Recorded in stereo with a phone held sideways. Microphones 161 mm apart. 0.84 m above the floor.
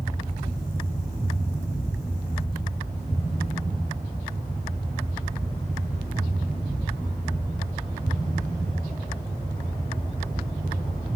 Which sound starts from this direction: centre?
A fan, at 0.0 s.